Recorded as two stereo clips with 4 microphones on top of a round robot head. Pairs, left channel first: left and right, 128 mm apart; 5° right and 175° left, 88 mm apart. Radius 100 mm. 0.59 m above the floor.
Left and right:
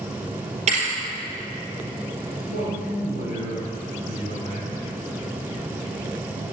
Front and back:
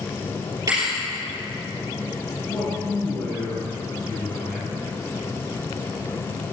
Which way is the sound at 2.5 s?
80° right.